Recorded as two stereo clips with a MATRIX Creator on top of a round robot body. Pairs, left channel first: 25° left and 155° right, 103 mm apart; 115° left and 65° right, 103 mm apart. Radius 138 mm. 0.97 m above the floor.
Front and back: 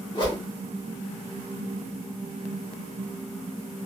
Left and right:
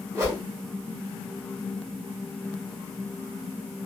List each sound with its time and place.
0.1 s a whoosh: 10° right, 1.5 m